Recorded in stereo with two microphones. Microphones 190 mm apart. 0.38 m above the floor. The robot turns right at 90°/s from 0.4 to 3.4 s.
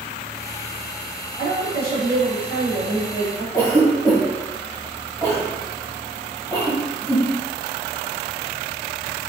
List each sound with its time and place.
1.4 s a woman speaking: 40° left, 1.4 m; by 3.4 s 135° right, 1.4 m
3.5 s a cough: 20° left (ahead or behind), 1.7 m